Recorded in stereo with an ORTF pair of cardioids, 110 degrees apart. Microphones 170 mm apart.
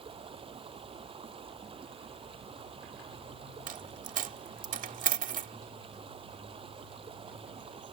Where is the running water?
30° right.